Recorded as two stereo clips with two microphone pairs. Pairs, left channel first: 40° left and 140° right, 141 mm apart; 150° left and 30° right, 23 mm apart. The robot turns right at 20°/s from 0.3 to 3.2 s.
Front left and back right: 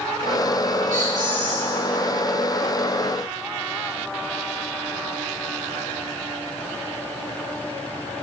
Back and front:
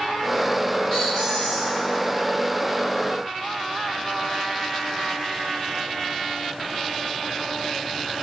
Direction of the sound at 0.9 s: 135° right.